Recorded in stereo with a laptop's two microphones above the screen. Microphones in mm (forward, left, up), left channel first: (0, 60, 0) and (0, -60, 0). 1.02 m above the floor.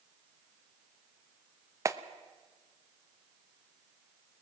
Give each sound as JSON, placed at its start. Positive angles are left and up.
{"t": 1.9, "sound": "a clap", "side_deg": -25, "distance_m": 0.9}